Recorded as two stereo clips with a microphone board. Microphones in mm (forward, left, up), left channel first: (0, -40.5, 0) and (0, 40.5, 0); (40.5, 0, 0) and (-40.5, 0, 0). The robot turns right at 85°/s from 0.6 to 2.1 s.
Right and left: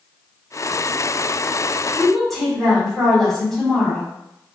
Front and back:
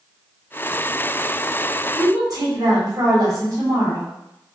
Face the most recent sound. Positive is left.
turn(degrees=180)